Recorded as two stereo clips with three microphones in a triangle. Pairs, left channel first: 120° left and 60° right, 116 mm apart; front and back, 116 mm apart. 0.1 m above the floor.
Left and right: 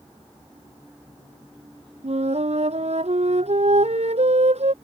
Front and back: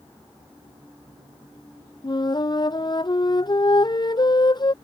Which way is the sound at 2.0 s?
50° right.